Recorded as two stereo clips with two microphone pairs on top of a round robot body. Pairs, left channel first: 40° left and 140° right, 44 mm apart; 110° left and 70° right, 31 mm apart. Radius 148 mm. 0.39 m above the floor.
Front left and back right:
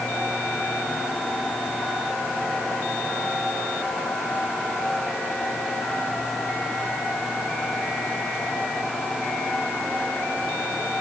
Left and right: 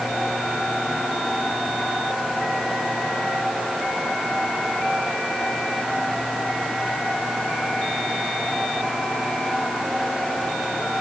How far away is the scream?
No scream in this recording.